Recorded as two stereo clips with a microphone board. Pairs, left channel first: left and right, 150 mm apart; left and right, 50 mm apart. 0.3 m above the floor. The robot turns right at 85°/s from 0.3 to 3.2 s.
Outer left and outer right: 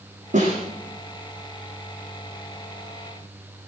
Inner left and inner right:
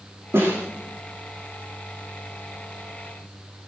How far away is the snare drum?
About 9.5 m.